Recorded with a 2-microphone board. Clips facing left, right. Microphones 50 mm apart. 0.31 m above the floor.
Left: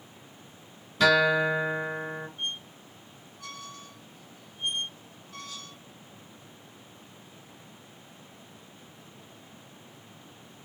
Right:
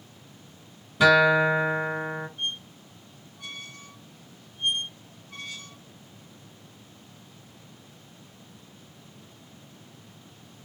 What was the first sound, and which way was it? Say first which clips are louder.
A guitar: right 4 dB; 15° right (ahead or behind).